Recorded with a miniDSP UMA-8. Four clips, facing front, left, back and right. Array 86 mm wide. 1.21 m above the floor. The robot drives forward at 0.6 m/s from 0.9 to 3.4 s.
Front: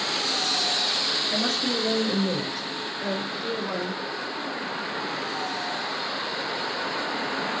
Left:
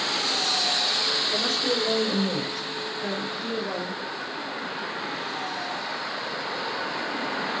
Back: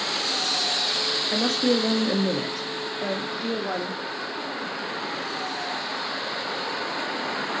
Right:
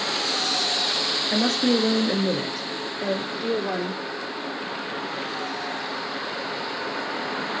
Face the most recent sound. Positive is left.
turn(degrees=-150)